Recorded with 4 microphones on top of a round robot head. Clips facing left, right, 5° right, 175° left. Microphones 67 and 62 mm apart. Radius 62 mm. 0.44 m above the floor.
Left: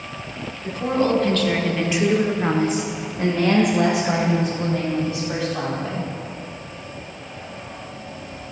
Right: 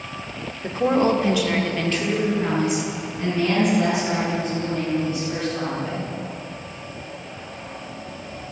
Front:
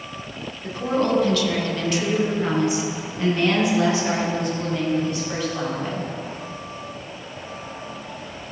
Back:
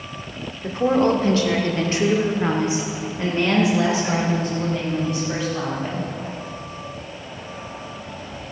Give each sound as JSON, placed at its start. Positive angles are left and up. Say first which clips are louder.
{"t": 0.6, "sound": "a woman speaking", "louder": "right 2 dB, back 4 dB", "azimuth_deg": -135, "distance_m": 1.6}